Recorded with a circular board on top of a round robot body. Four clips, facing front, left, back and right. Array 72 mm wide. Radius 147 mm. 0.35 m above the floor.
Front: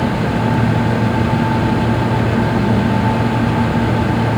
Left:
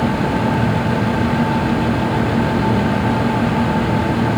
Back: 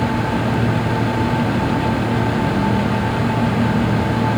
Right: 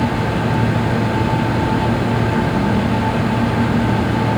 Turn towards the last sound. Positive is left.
No sound to turn to.